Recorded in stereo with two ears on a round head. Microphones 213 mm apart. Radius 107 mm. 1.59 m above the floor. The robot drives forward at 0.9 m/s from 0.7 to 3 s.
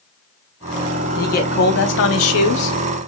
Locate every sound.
1.2 s a man speaking: 35° left (ahead or behind), 1.9 m; by 2.8 s 85° left, 1.1 m